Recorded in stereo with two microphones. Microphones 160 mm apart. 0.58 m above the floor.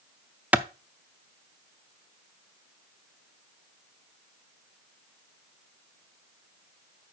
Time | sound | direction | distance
0.5 | a clap | 10° right (ahead or behind) | 0.6 m